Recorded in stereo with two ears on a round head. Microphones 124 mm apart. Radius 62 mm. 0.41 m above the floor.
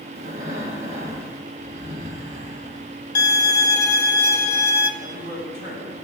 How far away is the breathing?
About 1.4 m.